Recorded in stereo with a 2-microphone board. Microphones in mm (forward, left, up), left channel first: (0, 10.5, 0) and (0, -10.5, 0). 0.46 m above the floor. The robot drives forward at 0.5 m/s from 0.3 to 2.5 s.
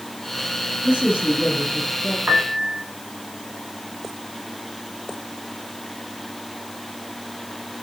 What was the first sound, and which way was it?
A man speaking, 50° right (ahead or behind).